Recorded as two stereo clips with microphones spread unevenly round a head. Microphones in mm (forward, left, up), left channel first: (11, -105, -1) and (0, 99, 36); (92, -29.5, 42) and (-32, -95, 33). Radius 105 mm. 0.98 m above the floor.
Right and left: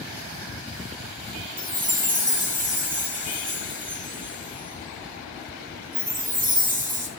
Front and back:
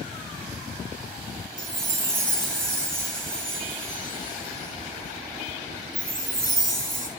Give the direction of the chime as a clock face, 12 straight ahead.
8 o'clock.